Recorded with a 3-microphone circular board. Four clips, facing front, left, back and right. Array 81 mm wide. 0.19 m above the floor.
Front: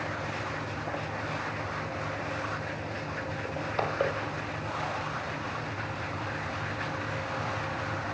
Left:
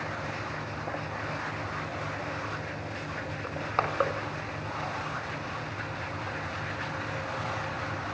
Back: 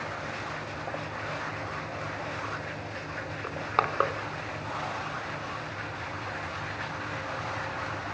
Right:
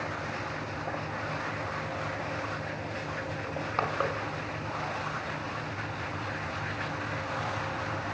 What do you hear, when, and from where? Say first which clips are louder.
3.4 s crushing: left 2 dB, back 4 dB; 160° left, 1.1 m